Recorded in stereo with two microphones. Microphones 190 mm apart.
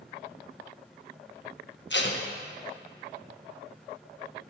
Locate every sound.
1.9 s tape being pulled: 70° left (ahead or behind), 1.0 m